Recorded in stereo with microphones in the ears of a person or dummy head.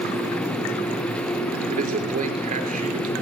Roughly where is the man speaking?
Right.